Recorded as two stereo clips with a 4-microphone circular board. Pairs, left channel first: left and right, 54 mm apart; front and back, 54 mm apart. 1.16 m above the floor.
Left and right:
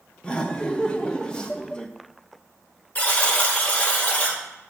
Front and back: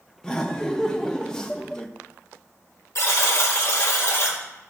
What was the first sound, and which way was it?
Laughter, 55° left.